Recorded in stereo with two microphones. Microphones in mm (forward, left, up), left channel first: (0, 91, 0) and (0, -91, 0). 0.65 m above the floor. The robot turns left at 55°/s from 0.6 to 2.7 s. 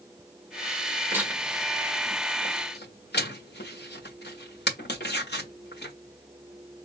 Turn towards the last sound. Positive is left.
turn(degrees=65)  # may be behind; listen again after turning